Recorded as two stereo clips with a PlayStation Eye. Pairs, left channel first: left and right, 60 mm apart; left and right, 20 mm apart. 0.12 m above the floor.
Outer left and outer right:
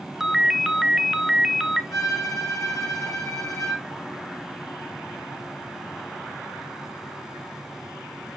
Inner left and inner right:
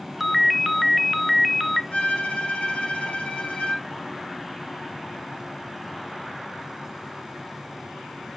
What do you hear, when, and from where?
0.2 s a ringtone: 5° right (ahead or behind), 0.6 m
1.9 s a violin: 80° left, 7.5 m